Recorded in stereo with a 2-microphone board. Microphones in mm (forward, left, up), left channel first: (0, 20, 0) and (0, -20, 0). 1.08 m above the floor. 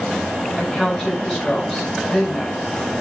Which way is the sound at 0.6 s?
10° left (ahead or behind).